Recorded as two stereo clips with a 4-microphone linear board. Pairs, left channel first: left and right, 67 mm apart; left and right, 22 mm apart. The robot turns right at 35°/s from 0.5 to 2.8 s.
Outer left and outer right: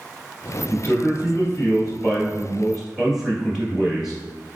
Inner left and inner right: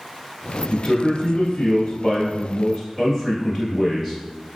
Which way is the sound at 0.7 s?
110° left.